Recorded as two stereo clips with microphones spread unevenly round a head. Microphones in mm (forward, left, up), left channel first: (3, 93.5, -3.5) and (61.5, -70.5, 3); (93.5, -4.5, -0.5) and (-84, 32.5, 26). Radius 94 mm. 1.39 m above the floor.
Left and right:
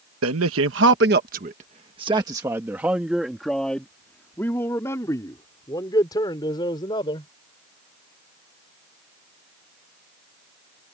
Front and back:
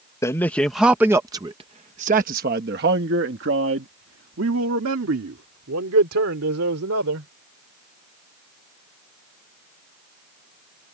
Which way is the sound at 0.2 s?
90° right.